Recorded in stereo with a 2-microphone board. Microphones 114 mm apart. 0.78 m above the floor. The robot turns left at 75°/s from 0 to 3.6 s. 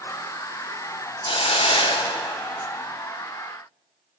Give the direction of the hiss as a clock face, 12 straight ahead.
8 o'clock.